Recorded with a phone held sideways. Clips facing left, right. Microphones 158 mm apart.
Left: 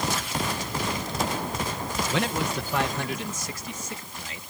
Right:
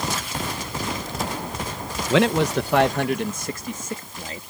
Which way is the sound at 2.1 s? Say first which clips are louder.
Right 11 dB; 80° right.